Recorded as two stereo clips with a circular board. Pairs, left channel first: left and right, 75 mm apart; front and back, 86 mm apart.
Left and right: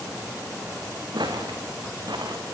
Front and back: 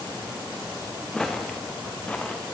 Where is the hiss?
I don't hear a hiss.